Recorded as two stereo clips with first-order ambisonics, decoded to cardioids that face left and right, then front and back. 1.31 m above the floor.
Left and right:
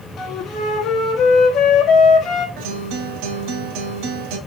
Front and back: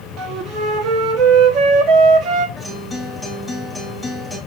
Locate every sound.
0.2 s a flute: 140° left, 1.8 m
2.6 s a guitar: 85° right, 2.5 m